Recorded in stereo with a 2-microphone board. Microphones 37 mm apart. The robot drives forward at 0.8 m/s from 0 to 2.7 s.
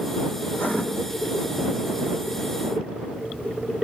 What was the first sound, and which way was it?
Writing, 60° left (ahead or behind).